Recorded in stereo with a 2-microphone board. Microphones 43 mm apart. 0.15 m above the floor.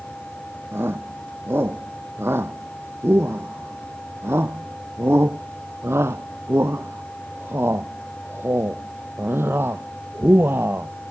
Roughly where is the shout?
Right.